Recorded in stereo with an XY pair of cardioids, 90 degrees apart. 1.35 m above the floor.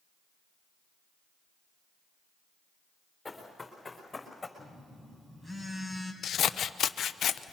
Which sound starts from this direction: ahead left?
Scissors, at 6.2 s.